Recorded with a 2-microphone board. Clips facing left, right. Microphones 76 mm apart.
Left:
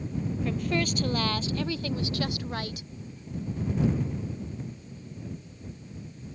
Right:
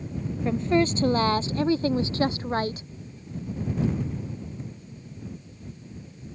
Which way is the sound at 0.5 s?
25° right (ahead or behind).